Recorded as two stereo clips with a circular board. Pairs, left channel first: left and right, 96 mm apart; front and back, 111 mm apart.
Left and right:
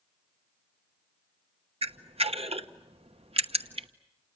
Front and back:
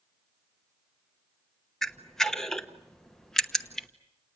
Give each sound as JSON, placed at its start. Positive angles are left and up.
{"t": 1.8, "sound": "a camera shutter", "azimuth_deg": -85, "distance_m": 1.0}